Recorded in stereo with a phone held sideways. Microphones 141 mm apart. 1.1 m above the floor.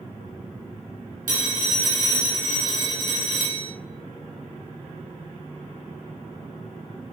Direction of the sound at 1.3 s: 75° right (ahead or behind).